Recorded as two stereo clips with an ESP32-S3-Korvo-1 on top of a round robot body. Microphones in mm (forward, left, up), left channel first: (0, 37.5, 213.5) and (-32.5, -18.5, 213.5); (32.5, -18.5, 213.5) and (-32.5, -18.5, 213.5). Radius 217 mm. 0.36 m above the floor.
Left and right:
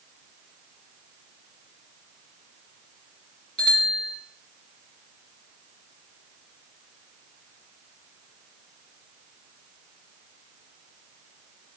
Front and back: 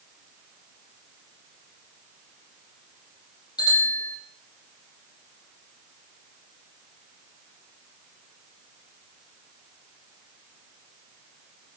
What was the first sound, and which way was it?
A bicycle bell, 15° right.